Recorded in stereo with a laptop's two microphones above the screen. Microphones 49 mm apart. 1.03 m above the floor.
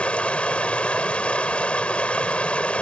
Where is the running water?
25° left (ahead or behind).